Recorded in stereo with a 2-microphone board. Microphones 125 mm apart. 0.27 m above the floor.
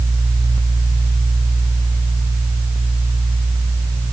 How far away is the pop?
No pop in this recording.